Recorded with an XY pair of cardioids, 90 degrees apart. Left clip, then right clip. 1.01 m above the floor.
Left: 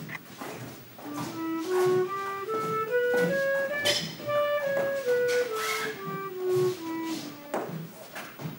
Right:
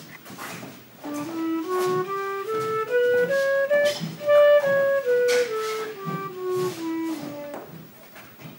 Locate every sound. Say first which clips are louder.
1.1 s a flute: right 5 dB; 40° right, 0.6 m